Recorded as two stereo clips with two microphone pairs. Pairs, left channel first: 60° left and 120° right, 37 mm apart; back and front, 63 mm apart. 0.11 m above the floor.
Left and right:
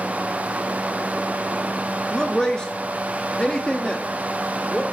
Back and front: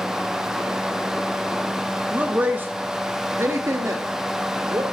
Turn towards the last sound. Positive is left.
turn(degrees=5)